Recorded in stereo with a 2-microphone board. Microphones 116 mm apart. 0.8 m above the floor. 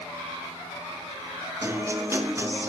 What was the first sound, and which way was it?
A guitar, 25° right (ahead or behind).